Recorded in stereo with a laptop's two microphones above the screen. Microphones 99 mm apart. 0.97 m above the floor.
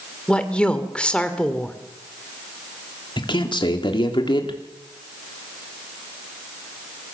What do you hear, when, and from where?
0.3 s a woman speaking: 10° left (ahead or behind), 2.5 m
3.2 s a man speaking: 55° left (ahead or behind), 3 m